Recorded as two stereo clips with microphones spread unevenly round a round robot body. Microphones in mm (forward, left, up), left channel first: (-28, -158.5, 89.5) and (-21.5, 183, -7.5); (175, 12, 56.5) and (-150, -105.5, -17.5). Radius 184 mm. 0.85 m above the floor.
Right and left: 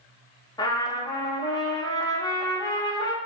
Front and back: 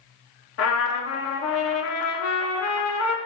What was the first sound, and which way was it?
A trumpet, 5° left.